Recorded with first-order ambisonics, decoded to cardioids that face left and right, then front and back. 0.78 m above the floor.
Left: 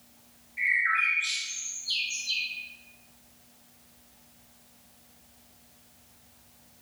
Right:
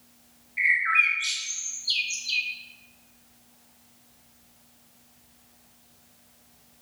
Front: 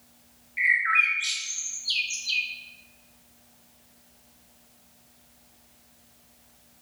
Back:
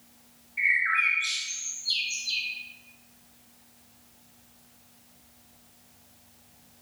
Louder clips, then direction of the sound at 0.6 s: Right 4 dB, front 2 dB; 35° right.